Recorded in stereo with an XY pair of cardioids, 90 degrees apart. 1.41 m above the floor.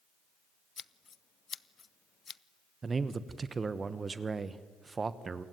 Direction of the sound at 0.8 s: 45° left.